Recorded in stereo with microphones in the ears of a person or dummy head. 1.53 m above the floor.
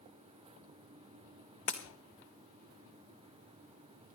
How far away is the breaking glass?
About 1.0 m.